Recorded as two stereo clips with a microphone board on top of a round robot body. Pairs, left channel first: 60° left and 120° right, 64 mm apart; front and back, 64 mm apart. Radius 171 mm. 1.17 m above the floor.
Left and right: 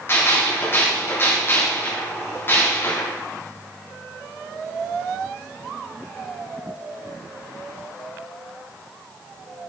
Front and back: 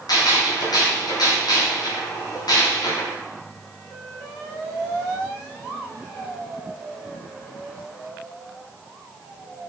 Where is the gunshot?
5° left, 3.5 m.